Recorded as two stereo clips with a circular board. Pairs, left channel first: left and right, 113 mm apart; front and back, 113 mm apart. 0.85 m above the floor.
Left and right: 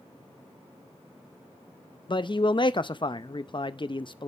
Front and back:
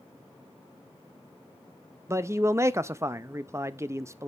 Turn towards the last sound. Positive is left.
turn(degrees=120)